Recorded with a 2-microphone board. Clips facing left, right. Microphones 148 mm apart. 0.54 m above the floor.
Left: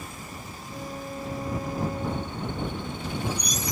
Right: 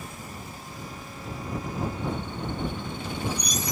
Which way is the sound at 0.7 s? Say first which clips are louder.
Left 9 dB; 45° left (ahead or behind).